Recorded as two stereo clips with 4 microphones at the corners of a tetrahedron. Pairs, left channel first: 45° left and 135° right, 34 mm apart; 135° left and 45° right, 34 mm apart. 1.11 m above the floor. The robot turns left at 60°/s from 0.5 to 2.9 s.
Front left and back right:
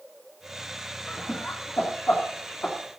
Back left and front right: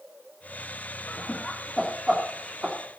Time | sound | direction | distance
1.1 | laughter | 100° left | 2.5 m